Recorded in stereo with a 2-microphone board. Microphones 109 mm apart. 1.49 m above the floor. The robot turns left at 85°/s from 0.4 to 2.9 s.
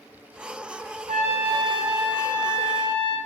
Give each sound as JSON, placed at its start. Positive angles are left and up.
{"t": 1.1, "sound": "a trumpet", "azimuth_deg": -65, "distance_m": 4.0}